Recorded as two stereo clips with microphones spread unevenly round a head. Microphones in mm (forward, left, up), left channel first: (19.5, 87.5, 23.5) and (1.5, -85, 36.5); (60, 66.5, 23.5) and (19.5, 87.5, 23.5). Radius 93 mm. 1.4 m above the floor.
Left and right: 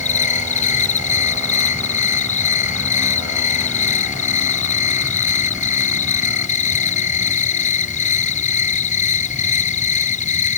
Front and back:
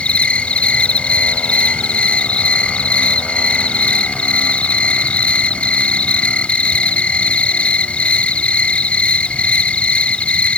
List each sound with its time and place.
0.0 s an insect: 35° left